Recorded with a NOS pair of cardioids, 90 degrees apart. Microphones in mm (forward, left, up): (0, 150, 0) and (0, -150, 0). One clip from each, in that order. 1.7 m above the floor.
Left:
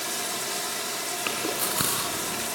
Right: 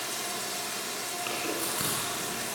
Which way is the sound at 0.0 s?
35° left.